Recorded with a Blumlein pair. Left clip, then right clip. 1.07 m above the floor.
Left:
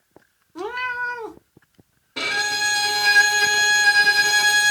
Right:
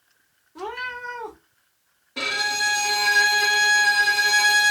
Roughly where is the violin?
Ahead.